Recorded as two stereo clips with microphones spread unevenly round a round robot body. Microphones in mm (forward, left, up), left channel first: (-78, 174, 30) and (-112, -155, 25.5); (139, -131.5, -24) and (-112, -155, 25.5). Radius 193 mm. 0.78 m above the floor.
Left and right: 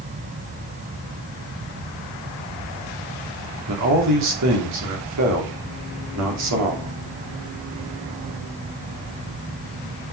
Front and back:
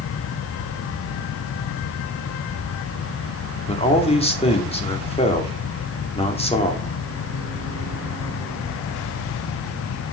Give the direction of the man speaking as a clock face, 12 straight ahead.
2 o'clock.